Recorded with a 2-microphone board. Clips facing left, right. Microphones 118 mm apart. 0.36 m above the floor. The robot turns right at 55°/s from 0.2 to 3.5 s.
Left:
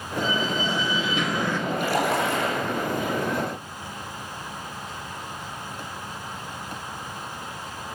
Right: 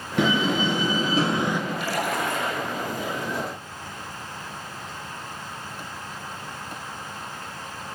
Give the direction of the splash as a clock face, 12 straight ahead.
10 o'clock.